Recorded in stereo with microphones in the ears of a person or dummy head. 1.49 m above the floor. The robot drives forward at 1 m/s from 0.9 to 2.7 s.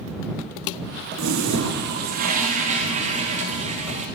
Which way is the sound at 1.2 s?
75° right (ahead or behind).